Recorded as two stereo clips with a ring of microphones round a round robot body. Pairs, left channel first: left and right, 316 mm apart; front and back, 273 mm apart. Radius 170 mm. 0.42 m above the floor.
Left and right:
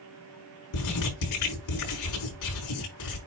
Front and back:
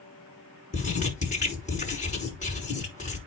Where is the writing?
65° left, 5.5 m.